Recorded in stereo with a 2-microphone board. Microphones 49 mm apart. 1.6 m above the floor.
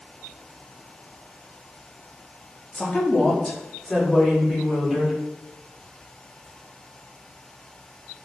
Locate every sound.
2.7 s a woman speaking: 30° left (ahead or behind), 1.0 m; by 5.1 s 10° left (ahead or behind), 2.5 m